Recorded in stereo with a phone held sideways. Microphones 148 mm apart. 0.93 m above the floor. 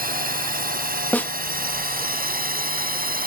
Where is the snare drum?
10° left (ahead or behind).